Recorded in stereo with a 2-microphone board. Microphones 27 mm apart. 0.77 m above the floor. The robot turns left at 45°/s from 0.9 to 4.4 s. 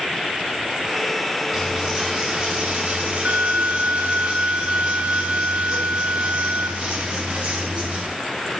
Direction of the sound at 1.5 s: 25° left.